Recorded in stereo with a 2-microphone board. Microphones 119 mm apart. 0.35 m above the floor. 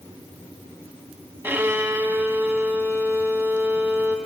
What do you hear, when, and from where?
1.4 s a violin: 20° right (ahead or behind), 1.4 m